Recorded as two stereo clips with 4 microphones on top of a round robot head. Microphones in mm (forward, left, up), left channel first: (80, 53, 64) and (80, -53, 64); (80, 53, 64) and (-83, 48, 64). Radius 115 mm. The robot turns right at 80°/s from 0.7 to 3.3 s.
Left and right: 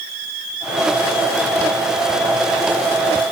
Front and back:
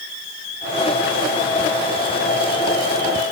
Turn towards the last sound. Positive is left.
No sound to turn to.